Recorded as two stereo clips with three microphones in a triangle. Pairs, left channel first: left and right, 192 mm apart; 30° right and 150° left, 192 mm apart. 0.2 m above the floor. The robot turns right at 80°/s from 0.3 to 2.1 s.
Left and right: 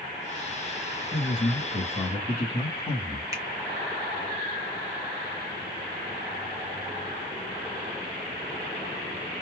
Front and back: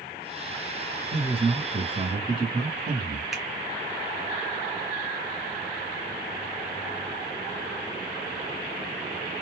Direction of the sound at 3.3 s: 120° right.